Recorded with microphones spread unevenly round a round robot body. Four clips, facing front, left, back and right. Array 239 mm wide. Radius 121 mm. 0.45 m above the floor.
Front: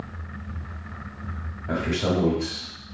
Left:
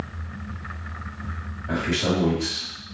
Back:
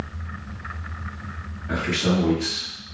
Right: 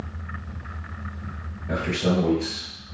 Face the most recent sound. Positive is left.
turn(degrees=10)